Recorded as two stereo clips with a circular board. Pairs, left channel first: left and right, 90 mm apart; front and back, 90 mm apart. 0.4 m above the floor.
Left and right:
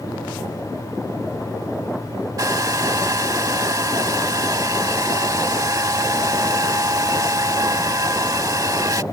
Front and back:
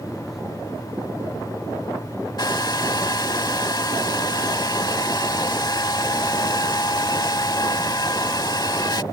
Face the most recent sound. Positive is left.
turn(degrees=-40)